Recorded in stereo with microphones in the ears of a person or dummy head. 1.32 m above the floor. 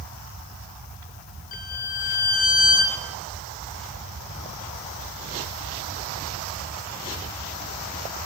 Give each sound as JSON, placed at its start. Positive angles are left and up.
{"t": 1.5, "sound": "a violin", "side_deg": 35, "distance_m": 0.6}